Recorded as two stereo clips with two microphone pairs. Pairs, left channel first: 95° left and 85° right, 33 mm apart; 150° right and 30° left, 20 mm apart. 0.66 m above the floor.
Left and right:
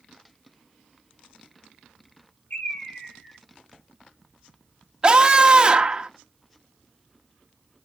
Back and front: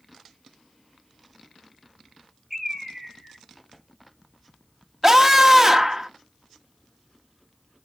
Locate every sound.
2.5 s a bird: 115° left, 5 m
5.0 s a scream: 35° right, 1.3 m